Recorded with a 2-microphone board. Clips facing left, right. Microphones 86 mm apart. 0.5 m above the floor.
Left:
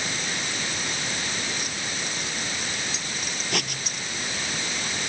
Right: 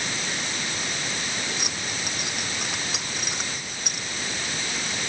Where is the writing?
75° left (ahead or behind).